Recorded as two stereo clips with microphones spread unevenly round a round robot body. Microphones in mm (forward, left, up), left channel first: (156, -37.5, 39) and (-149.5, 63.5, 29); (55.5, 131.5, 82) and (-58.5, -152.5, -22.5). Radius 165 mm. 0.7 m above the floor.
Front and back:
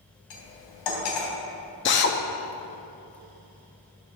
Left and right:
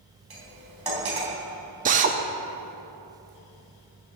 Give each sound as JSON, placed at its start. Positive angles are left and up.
{"t": 0.3, "sound": "cutlery clinking", "azimuth_deg": -25, "distance_m": 3.0}
{"t": 1.9, "sound": "a drill", "azimuth_deg": -70, "distance_m": 0.7}